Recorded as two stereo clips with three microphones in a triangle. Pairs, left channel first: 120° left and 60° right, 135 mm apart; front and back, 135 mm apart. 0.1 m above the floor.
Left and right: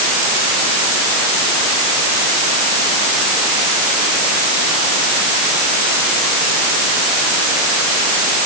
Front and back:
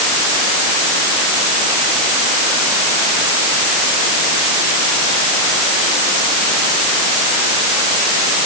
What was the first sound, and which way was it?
Only background noise.